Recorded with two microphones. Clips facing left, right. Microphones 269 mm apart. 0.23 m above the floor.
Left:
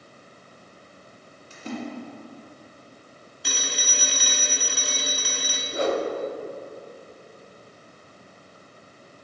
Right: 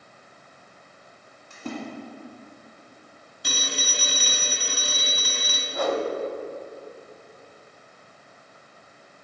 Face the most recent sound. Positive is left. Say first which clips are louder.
# left 1 dB
turn(degrees=25)  # may be behind; listen again after turning